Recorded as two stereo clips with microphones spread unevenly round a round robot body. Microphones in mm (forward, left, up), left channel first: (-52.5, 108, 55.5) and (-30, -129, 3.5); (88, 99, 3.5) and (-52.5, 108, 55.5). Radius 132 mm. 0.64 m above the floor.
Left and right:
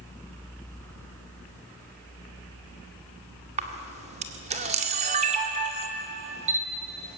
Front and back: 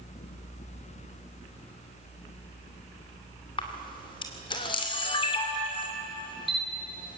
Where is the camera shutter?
35° right, 2.0 m.